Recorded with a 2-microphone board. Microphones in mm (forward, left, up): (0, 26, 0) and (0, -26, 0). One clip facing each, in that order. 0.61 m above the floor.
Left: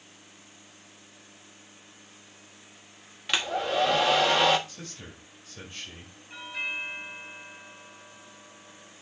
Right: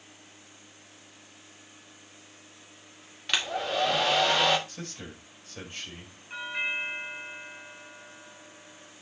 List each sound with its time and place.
3.3 s a hair dryer: 5° left (ahead or behind), 1.3 m
4.7 s a man speaking: 40° right (ahead or behind), 4 m
6.3 s a doorbell: 30° right (ahead or behind), 5 m